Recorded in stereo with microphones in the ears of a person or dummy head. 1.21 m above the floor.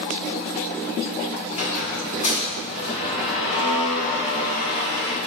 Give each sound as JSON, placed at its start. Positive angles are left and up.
{"t": 1.5, "sound": "a squeak", "side_deg": 35, "distance_m": 2.0}